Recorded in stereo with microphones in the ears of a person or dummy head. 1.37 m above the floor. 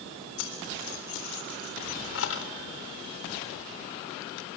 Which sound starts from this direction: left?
Keys jangling, at 0.4 s.